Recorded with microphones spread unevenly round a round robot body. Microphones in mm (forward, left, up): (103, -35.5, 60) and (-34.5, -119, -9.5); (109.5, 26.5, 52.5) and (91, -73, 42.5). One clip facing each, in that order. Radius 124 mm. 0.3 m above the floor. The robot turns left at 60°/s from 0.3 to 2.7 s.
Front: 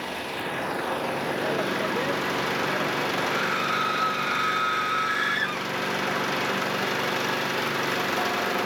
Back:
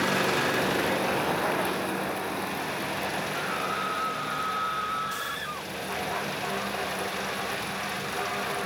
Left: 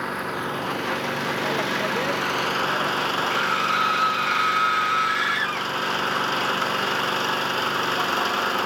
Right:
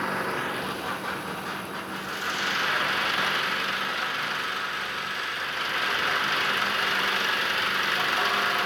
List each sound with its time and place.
0.0 s an engine running: 170° left; by 8.7 s 25° left
3.3 s a scream: 70° left